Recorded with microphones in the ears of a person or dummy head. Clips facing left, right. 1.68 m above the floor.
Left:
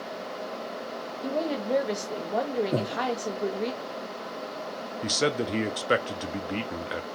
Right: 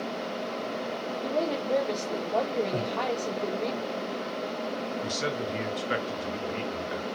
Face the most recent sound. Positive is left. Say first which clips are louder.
# left 4 dB
turn(degrees=60)  # may be behind; listen again after turning